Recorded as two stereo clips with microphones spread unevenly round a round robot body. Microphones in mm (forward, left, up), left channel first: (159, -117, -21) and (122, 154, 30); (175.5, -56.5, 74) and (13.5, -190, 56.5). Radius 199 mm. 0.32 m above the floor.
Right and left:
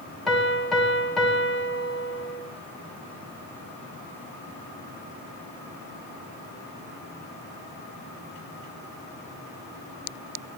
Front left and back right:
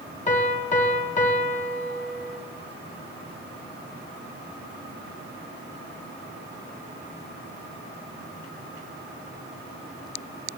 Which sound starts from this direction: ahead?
A piano, at 0.3 s.